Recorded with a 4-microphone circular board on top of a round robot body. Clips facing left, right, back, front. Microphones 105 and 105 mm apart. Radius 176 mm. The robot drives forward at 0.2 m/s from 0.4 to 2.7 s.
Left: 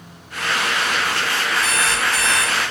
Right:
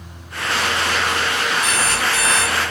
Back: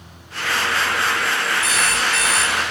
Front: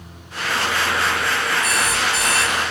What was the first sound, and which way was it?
An alarm clock, 175° right.